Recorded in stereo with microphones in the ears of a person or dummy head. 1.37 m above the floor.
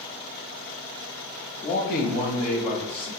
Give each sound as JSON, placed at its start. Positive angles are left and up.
{"t": 1.6, "sound": "a man speaking", "side_deg": 30, "distance_m": 0.7}